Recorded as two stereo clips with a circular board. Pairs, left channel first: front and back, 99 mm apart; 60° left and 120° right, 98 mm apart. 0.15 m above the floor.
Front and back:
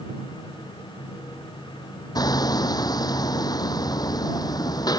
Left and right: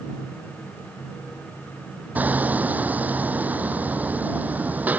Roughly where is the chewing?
I don't hear chewing.